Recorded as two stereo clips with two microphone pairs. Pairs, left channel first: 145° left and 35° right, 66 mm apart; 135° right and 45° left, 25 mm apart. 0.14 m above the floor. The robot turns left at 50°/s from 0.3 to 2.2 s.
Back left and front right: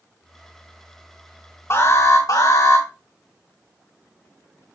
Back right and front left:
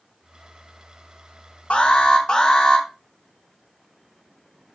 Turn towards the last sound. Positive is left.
turn(degrees=165)